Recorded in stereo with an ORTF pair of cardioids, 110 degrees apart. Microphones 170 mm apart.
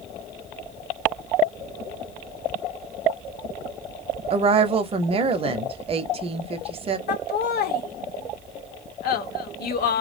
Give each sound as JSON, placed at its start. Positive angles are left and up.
{"t": 4.3, "sound": "a woman speaking", "azimuth_deg": -35, "distance_m": 0.7}
{"t": 7.1, "sound": "laughter", "azimuth_deg": 65, "distance_m": 0.8}